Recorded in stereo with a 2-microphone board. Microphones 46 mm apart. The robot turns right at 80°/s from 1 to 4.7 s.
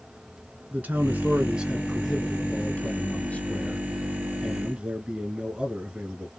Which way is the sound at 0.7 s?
70° right.